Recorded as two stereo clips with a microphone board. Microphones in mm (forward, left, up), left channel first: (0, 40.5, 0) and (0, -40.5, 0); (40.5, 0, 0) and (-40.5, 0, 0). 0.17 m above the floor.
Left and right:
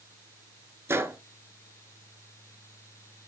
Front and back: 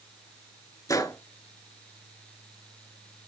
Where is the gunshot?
35° right, 0.8 m.